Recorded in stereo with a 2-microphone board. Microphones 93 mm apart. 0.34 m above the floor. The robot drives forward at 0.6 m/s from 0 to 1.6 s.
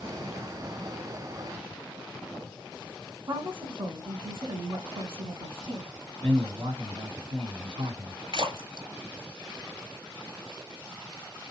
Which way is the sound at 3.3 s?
60° right (ahead or behind).